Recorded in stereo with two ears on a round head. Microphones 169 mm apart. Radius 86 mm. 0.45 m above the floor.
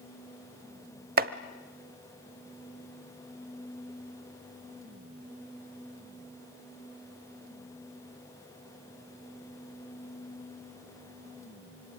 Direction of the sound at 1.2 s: 50° right (ahead or behind).